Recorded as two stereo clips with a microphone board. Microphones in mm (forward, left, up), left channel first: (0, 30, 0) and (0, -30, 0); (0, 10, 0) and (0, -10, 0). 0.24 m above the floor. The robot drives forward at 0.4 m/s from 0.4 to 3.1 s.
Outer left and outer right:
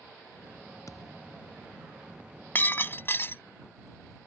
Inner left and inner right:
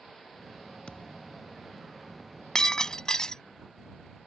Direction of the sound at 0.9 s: 65° left (ahead or behind).